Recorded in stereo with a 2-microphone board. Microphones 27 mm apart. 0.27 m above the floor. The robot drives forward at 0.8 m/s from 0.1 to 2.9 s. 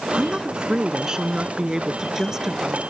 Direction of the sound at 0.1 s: 35° right (ahead or behind).